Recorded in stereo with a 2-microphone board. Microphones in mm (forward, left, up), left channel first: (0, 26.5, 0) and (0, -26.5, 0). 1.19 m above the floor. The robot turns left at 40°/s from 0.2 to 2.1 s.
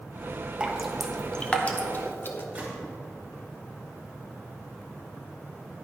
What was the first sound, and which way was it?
Dripping, 15° right (ahead or behind).